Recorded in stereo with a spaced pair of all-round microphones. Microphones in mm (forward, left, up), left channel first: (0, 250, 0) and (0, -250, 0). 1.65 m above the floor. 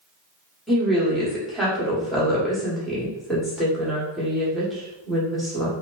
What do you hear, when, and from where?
0.7 s a woman speaking: centre (ahead or behind), 1.3 m